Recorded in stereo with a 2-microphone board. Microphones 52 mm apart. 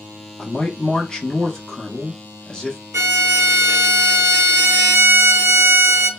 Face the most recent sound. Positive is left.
turn(degrees=-60)  # may be behind; listen again after turning